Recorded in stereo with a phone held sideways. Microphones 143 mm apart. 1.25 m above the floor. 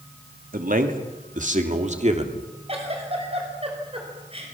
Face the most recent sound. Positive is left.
turn(degrees=-40)  # may be behind; listen again after turning